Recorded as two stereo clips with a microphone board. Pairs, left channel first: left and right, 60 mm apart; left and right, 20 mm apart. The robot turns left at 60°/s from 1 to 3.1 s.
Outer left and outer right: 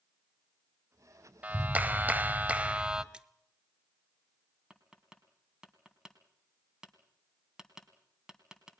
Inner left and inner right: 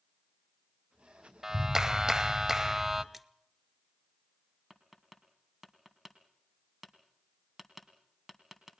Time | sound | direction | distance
1.4 | a clap | 25° right (ahead or behind) | 0.8 m
3.1 | a splash | 15° right (ahead or behind) | 0.7 m
4.7 | tapping | 10° right (ahead or behind) | 2.5 m